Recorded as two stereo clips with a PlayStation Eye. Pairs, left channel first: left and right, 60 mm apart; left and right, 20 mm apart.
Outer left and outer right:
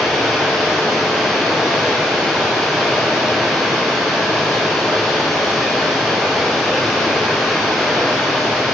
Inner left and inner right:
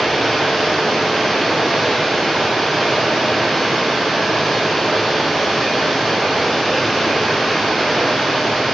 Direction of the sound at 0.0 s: 5° left (ahead or behind).